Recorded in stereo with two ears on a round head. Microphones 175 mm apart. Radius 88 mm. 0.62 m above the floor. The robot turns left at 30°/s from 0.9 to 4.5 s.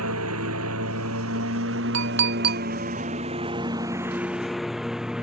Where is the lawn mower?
90° right; by 5.2 s 5° right (ahead or behind).